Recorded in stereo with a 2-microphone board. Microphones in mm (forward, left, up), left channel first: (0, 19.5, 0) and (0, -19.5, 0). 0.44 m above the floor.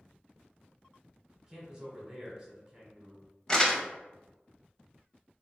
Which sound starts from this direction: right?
A man speaking, at 1.5 s.